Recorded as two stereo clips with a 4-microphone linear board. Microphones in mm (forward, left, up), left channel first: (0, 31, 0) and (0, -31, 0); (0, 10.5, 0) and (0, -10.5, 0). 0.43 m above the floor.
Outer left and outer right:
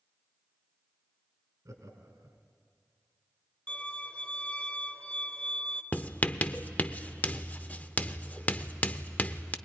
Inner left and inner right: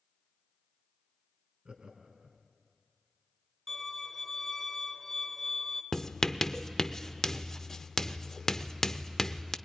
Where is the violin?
20° left (ahead or behind), 1.2 m.